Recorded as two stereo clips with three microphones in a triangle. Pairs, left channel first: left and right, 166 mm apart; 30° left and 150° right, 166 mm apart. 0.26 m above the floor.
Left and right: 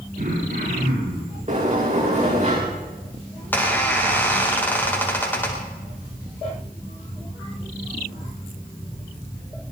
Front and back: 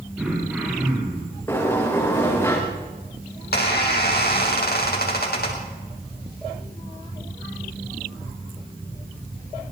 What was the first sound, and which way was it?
Throat clearing, 70° right.